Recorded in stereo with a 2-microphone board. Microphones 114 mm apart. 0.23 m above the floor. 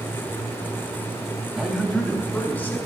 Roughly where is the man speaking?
Centre.